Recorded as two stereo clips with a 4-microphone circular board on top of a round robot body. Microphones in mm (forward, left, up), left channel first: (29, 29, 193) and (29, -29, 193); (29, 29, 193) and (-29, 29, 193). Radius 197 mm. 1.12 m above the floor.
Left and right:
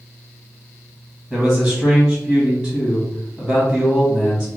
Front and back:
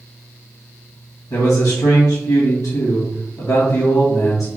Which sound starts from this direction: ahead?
A man speaking, at 1.3 s.